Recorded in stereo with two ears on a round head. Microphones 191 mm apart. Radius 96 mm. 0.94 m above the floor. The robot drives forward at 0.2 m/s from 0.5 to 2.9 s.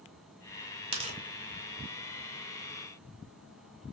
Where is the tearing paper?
25° right (ahead or behind), 0.9 m.